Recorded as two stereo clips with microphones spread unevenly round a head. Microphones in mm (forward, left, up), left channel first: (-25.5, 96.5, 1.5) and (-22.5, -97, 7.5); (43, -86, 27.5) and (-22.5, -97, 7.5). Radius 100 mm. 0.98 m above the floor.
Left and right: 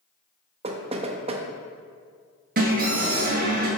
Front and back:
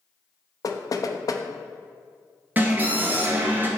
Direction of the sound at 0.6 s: 25° right.